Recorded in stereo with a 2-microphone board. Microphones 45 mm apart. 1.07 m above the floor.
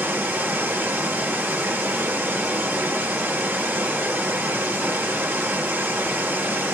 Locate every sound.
0.0 s running water: 55° right (ahead or behind), 1.7 m